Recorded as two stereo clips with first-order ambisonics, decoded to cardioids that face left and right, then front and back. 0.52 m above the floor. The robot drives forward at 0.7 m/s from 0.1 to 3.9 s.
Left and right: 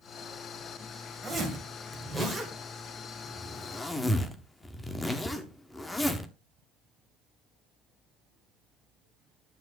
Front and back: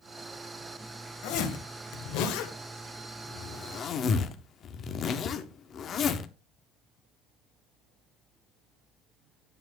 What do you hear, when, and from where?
1.2 s a zipper: 5° left, 2.5 m; by 6.3 s 20° left, 0.9 m